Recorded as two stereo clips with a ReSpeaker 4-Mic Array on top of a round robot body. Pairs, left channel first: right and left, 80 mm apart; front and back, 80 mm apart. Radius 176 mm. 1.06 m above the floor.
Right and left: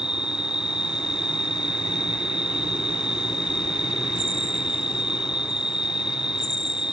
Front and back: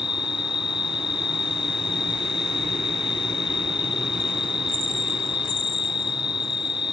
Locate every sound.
0.0 s an insect: 10° left